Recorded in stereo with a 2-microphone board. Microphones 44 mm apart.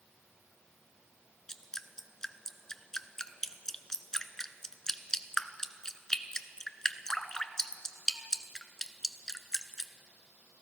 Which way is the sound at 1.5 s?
15° left (ahead or behind).